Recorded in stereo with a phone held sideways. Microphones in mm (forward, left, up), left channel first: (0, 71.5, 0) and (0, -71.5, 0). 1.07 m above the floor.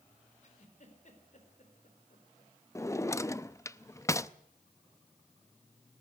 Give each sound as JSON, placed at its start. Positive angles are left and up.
{"t": 0.4, "sound": "a giggle", "side_deg": 55, "distance_m": 4.0}
{"t": 2.8, "sound": "a drawer", "side_deg": 20, "distance_m": 0.5}